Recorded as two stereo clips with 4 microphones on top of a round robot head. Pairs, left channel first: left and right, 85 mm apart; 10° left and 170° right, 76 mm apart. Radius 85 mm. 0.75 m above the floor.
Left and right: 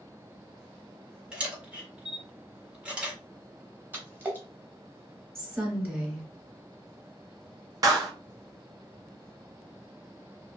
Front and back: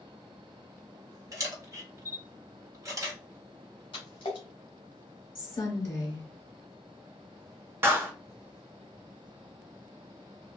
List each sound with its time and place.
1.3 s a camera shutter: 160° right, 1.3 m
3.9 s a splash: 30° right, 0.7 m
5.3 s a woman speaking: 30° right, 1.3 m
7.8 s a clap: 120° right, 0.7 m